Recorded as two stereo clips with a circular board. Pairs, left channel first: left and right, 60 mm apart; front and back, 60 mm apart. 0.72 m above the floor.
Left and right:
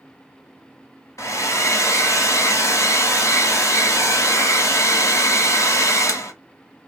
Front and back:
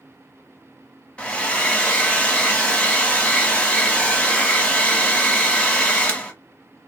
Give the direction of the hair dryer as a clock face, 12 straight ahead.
10 o'clock.